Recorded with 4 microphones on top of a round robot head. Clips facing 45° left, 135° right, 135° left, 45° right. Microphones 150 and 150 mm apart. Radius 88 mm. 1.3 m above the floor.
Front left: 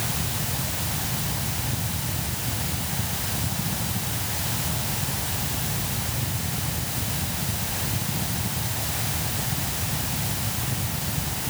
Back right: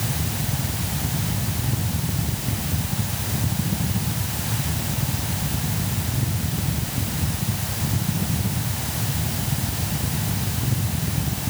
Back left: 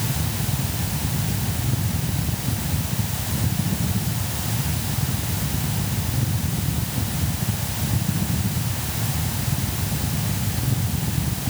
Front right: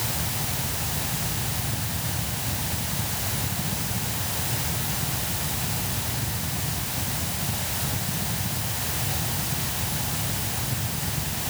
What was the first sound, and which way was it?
Only background noise.